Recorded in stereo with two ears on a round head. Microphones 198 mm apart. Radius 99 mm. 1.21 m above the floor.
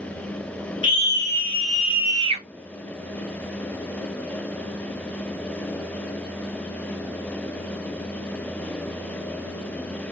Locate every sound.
0.8 s a scream: 20° left (ahead or behind), 1.8 m; by 2.4 s 35° right (ahead or behind), 0.9 m